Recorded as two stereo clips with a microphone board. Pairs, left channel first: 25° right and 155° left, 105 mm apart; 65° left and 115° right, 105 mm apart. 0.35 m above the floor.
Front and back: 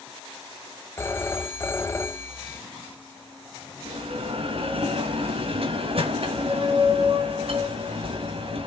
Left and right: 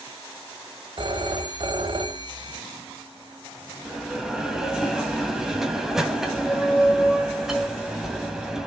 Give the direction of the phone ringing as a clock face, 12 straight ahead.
3 o'clock.